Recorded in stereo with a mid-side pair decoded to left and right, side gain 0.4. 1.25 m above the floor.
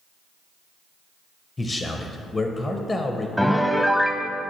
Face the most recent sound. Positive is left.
turn(degrees=5)